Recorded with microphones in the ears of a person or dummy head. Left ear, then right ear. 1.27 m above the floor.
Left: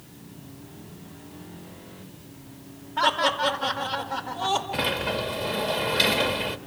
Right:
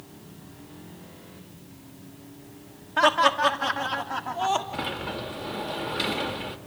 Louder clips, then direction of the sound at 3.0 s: Right 2 dB; 60° right (ahead or behind).